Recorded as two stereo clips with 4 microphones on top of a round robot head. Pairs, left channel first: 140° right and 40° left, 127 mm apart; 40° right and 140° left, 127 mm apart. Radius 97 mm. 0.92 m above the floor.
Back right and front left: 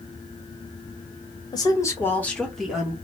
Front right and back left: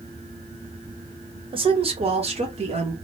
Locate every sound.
1.5 s a man speaking: 170° left, 1.1 m; by 2.9 s 120° left, 1.2 m